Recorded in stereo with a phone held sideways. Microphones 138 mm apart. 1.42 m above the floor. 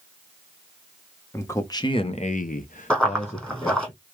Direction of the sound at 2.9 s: 5° left (ahead or behind).